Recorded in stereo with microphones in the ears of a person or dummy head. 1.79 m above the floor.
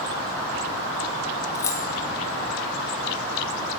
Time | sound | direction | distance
1.6 | keys jangling | 15° left (ahead or behind) | 1.1 m